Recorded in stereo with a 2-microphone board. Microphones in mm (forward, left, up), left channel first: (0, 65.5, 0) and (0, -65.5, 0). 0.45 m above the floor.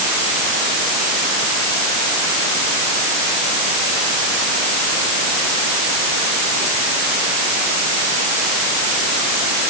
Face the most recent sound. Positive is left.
No sound to turn to.